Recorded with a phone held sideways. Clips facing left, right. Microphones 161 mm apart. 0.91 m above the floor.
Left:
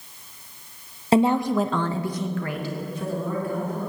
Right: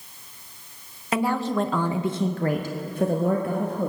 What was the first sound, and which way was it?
A woman speaking, 30° left (ahead or behind).